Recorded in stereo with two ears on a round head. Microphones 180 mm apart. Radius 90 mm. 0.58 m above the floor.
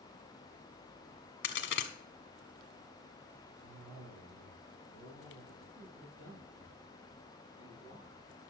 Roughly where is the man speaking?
Right.